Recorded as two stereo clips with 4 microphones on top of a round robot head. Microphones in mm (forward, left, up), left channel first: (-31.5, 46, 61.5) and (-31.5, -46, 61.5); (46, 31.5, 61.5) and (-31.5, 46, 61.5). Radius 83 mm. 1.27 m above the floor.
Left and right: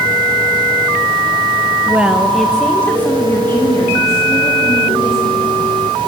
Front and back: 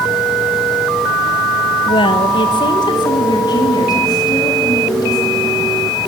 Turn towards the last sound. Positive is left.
turn(degrees=25)